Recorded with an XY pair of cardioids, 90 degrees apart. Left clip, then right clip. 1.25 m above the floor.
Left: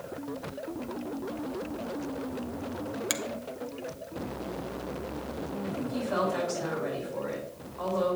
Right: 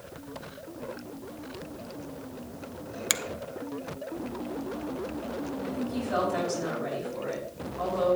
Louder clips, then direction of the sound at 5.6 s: Left 3 dB; straight ahead.